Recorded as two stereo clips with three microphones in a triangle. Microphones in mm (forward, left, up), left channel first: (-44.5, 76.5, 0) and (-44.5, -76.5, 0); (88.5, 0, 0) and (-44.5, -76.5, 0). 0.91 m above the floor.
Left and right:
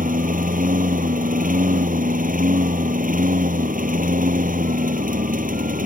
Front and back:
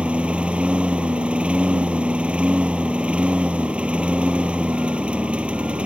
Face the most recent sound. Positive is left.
turn(degrees=-65)